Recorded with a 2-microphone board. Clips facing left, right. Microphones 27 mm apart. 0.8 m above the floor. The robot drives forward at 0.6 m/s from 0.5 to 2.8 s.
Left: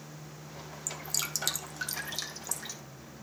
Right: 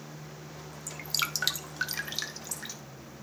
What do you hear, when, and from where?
0.9 s dripping: 50° right (ahead or behind), 0.6 m; by 2.8 s 15° right (ahead or behind), 1.6 m